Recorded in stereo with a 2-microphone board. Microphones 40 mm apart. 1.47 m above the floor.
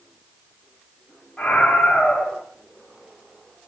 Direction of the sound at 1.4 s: 10° left (ahead or behind).